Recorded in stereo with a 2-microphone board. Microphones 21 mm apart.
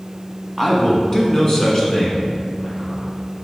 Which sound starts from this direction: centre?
A man speaking, at 0.6 s.